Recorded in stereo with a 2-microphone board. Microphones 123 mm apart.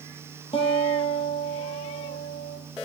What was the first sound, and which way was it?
A guitar, 50° left (ahead or behind).